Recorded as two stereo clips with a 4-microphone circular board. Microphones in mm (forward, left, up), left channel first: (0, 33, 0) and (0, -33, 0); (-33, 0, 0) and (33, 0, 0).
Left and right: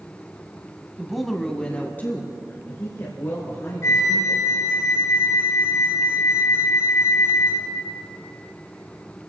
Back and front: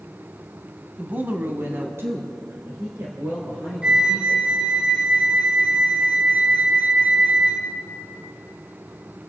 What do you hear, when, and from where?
1.0 s a woman speaking: 30° right, 1.1 m; by 4.8 s 50° left, 4 m
3.8 s a flute: 70° left, 1.7 m